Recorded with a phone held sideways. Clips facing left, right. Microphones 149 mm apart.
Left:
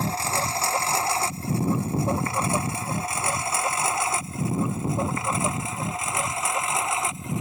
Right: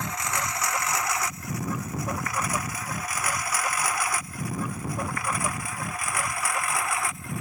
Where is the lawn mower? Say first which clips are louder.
Left 4 dB; 30° left (ahead or behind); by 7.4 s 20° left (ahead or behind).